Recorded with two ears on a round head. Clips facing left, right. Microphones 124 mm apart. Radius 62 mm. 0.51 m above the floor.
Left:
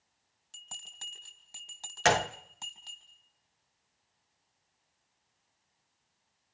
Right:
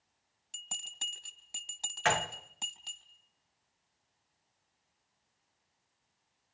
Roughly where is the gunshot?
Left.